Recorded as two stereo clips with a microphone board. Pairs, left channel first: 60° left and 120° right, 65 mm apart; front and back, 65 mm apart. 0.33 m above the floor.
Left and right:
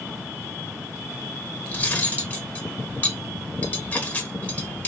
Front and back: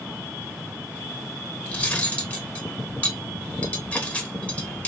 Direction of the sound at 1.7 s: 40° left.